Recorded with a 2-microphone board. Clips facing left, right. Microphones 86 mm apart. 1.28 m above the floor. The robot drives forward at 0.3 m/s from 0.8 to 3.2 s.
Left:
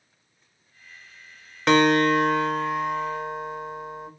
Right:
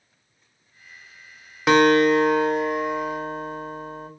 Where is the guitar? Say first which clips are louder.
Right 3 dB; 5° right (ahead or behind), 0.8 m.